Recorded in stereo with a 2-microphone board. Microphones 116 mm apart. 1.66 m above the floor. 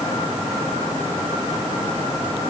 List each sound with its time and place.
Only background noise.